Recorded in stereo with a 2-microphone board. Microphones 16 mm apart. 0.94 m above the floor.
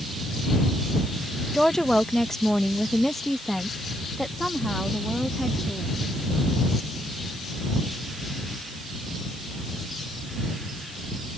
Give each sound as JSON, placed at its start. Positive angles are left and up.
{"t": 1.5, "sound": "a woman speaking", "side_deg": 35}